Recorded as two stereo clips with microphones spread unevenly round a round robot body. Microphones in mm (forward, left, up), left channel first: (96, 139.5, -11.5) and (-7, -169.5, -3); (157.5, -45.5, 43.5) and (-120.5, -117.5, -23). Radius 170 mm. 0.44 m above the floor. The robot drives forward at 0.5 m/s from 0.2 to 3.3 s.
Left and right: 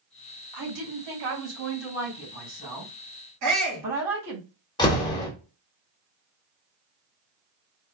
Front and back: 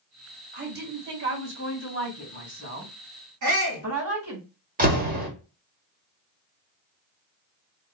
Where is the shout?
155° right, 3.5 m.